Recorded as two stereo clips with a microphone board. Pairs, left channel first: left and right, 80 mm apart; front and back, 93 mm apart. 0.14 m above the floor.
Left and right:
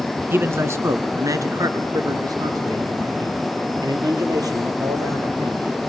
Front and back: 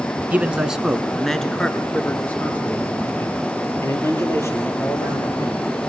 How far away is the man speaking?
About 1.2 m.